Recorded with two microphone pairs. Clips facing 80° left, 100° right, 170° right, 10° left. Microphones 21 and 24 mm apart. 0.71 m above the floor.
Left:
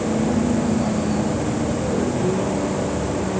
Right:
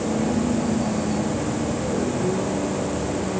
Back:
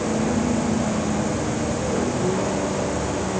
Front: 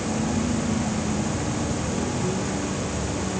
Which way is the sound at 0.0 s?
145° left.